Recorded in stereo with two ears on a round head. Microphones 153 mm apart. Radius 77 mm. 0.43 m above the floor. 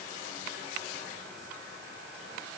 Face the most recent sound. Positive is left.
No sound to turn to.